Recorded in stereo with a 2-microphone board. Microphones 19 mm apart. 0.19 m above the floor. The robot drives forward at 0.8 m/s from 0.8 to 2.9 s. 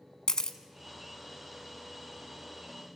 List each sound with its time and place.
0.3 s a camera shutter: 40° left (ahead or behind), 0.9 m